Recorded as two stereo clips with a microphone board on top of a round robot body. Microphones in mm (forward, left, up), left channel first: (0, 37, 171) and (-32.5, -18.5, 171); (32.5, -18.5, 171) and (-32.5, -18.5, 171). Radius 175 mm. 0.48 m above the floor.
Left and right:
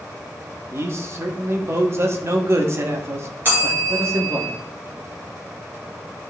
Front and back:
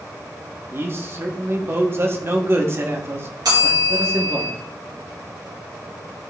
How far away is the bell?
About 3 m.